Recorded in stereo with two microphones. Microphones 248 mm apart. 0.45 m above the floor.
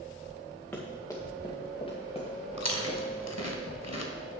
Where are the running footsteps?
5° left (ahead or behind), 2.5 m; by 3.3 s 35° left (ahead or behind), 3 m.